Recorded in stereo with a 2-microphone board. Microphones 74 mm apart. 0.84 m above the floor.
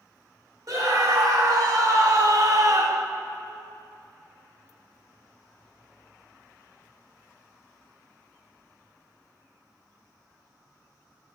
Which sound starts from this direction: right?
A scream, at 0.7 s.